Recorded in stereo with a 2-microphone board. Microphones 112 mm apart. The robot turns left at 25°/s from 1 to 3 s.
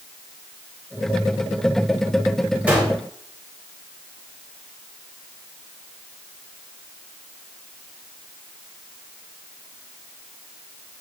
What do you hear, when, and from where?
2.7 s a gunshot: 10° right (ahead or behind), 2.5 m; by 2.9 s 20° right (ahead or behind), 2.5 m